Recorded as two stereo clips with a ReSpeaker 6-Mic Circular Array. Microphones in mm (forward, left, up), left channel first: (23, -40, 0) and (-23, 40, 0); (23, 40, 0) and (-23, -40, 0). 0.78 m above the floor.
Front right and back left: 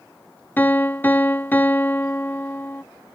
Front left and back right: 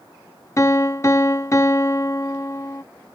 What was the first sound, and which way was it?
A piano, 5° left.